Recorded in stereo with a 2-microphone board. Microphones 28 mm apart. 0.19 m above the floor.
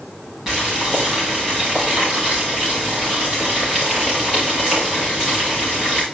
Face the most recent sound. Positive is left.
turn(degrees=-10)  # may be behind; listen again after turning